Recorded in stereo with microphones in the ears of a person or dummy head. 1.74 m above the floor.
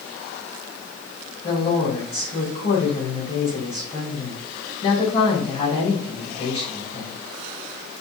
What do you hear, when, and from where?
1.4 s a woman speaking: 30° left (ahead or behind), 3.5 m